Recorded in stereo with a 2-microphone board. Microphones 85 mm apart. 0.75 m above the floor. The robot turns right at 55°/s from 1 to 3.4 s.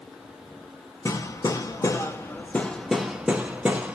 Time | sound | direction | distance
1.1 | hammering | 40° left (ahead or behind) | 0.6 m